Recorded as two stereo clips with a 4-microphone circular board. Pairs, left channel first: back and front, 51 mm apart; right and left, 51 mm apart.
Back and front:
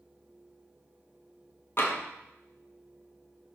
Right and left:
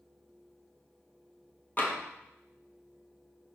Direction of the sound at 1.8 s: 140° right.